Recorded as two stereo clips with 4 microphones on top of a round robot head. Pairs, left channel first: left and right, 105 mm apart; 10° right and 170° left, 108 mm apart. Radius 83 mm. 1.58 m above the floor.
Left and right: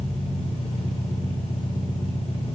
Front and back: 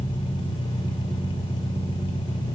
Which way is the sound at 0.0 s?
35° left.